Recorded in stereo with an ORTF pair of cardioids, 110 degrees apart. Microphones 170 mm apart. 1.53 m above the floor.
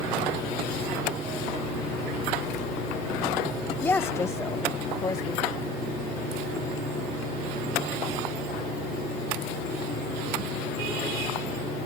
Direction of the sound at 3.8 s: 15° left.